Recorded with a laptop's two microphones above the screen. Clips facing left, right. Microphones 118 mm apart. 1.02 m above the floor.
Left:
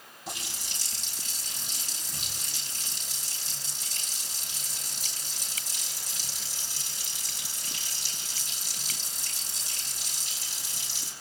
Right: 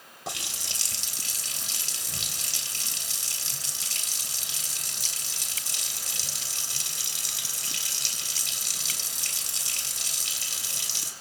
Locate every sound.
0.3 s a running tap: 85° right, 3.5 m